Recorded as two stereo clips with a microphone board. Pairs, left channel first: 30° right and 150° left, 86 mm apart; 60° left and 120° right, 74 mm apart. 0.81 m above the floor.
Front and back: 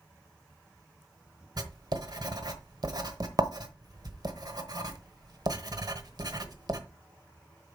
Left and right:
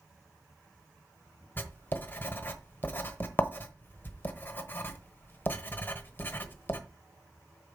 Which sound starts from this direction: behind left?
Writing, at 1.6 s.